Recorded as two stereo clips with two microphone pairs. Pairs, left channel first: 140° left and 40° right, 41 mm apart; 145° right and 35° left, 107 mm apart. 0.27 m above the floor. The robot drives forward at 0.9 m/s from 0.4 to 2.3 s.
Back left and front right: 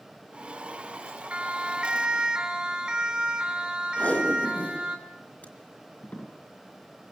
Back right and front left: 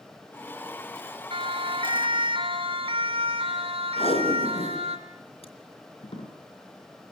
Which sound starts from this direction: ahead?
A siren, at 1.3 s.